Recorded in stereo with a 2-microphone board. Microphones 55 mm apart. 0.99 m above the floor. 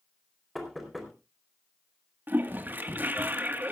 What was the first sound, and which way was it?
Knocking, centre (ahead or behind).